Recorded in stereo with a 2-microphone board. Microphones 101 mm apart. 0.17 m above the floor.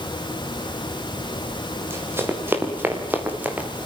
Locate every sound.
1.8 s running footsteps: 25° right (ahead or behind), 6.5 m; by 3.7 s 15° right (ahead or behind), 4.5 m